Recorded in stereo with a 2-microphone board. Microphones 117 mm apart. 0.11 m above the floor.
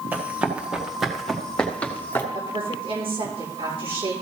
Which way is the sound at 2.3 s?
55° right (ahead or behind).